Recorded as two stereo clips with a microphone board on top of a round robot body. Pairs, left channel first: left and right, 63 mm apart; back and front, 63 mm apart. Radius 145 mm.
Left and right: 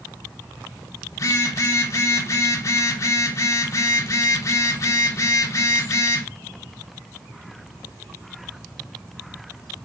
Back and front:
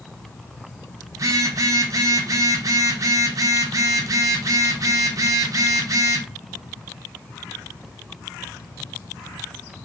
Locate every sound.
1.1 s a phone buzzing: 45° left, 0.7 m